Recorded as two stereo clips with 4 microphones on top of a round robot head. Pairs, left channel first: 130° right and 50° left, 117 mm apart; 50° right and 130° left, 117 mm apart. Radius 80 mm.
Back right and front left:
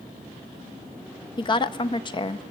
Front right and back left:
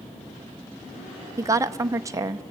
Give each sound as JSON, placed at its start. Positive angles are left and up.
{"t": 1.4, "sound": "a woman speaking", "azimuth_deg": -170, "distance_m": 0.8}